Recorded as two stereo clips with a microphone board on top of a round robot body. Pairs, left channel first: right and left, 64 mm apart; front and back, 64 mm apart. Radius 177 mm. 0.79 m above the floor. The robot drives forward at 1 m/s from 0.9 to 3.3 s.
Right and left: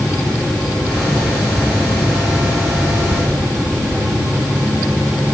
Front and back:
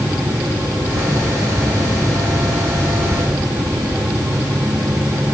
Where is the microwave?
I don't hear a microwave.